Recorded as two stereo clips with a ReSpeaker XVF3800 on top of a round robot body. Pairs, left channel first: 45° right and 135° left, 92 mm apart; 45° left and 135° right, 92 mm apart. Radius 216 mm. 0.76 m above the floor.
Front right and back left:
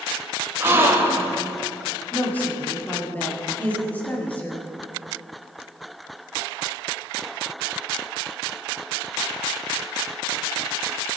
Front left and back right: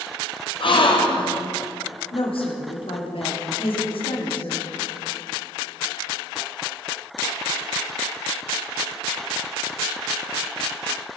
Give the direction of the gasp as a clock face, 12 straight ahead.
10 o'clock.